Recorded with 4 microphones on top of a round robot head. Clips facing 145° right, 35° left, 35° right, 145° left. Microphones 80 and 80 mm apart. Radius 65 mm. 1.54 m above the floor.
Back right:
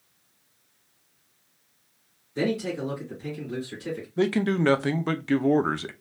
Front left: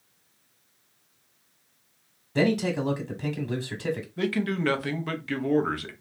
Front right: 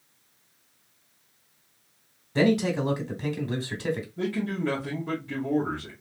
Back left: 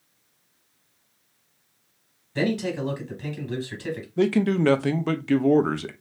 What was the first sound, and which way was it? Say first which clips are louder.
A man speaking: front left 3 dB, front right 3 dB; 20° left.